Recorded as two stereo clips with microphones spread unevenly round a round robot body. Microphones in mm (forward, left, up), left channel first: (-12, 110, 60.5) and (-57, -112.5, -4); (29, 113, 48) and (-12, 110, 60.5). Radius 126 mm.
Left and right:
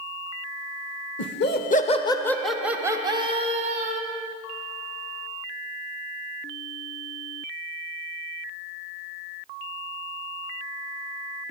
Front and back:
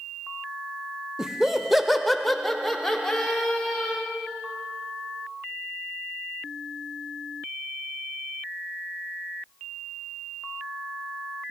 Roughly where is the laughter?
Left.